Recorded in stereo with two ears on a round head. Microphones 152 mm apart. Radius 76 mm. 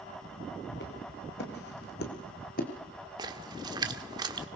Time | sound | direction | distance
0.7 | footsteps | 70° left (ahead or behind) | 4.5 m
3.2 | a splash | 25° right (ahead or behind) | 1.4 m